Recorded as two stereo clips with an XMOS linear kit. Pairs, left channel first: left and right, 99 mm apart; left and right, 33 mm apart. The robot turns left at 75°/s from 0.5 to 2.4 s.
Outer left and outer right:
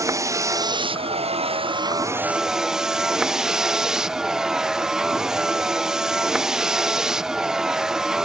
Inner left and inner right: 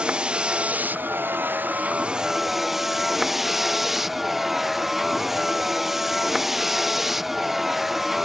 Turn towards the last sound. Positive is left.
turn(degrees=-175)